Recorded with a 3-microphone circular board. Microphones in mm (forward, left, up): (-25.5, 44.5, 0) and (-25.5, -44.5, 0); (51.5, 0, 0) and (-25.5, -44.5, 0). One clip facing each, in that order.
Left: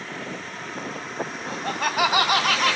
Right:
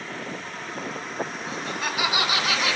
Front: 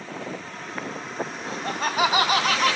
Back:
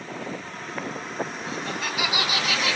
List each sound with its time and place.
1.5 s laughter: 70° left, 2.0 m; by 2.8 s 65° left, 2.5 m